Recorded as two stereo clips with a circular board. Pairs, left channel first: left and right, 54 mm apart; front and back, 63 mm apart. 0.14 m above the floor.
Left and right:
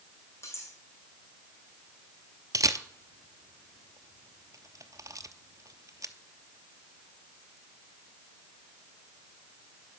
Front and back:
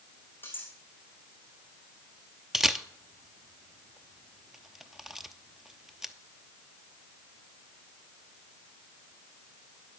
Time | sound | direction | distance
0.4 | cutlery clinking | 60° left | 4.5 m
2.5 | a camera shutter | 95° right | 0.8 m